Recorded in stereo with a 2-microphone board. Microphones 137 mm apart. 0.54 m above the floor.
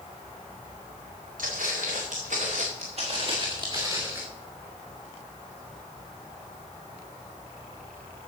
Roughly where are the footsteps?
Right.